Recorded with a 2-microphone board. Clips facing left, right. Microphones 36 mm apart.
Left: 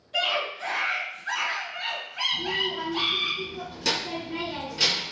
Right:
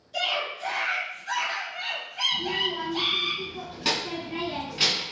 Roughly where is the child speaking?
Right.